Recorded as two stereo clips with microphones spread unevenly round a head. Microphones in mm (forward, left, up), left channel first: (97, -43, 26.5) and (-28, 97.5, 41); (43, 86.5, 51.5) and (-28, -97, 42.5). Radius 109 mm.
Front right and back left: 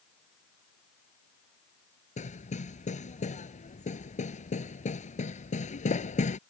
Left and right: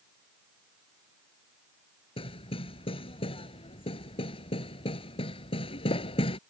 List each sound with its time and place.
2.2 s hammering: 5° left